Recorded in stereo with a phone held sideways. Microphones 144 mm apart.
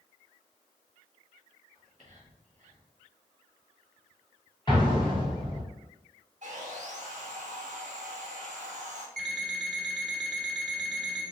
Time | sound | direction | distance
1.7 | whispering | 55° right (ahead or behind) | 1.3 m
4.7 | an explosion | 30° left (ahead or behind) | 1.3 m
6.4 | sawing | 55° right (ahead or behind) | 1.0 m
9.2 | an alarm clock | 5° left (ahead or behind) | 1.3 m